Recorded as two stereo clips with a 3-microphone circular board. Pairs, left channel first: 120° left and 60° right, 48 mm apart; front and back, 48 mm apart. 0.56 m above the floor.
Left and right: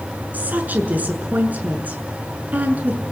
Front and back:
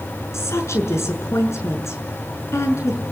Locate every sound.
0.3 s a woman speaking: 5° right, 6.5 m